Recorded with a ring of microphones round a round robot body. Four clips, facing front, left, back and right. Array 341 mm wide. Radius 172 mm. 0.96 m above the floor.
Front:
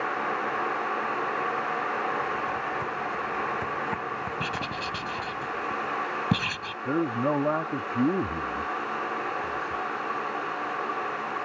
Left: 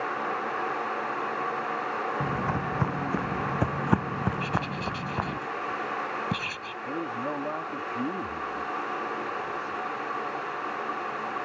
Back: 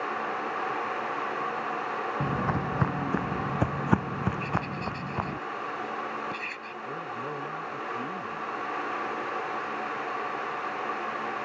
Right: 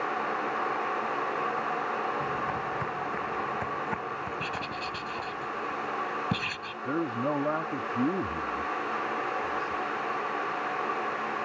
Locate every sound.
2.2 s footsteps: 150° left; by 5.4 s 125° left
4.4 s writing: straight ahead
6.8 s a man speaking: 15° right